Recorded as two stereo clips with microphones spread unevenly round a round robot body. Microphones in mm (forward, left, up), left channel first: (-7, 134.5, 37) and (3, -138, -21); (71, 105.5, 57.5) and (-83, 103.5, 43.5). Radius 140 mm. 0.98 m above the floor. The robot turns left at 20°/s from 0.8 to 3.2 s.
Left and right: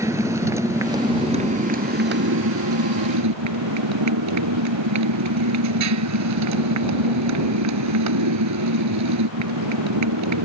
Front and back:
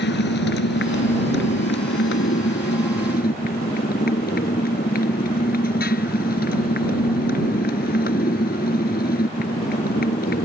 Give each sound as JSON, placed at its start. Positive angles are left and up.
{"t": 0.0, "sound": "a motorcycle", "azimuth_deg": -5}